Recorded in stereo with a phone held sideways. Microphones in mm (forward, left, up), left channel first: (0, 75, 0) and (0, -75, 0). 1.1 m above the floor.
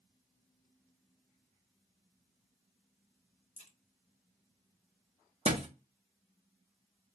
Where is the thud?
40° right (ahead or behind), 0.6 m.